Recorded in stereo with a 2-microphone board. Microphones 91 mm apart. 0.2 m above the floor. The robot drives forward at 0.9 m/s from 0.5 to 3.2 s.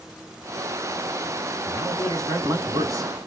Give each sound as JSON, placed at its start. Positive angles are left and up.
{"t": 1.6, "sound": "a man speaking", "side_deg": -35, "distance_m": 2.0}